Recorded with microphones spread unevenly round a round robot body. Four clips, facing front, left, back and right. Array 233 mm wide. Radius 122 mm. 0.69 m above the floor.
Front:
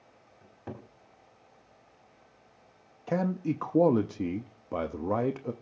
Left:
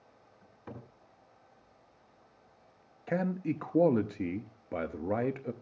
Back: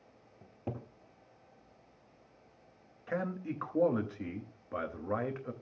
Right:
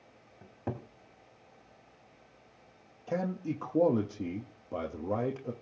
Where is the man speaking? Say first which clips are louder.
Left 2 dB, front 7 dB; 15° left, 0.8 m.